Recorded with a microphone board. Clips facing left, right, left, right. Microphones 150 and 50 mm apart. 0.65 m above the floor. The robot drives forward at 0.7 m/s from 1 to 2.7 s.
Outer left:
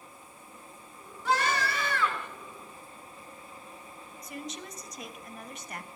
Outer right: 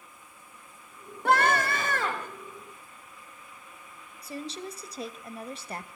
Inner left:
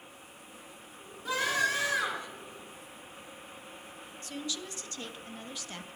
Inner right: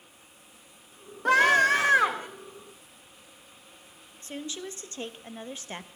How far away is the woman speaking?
About 0.6 m.